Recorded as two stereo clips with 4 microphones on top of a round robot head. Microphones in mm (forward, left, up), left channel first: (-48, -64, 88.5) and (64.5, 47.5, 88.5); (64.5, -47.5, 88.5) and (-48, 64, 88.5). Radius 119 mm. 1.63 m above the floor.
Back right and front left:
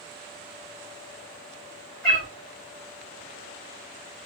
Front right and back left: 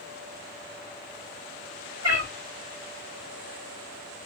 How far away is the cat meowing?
About 2 m.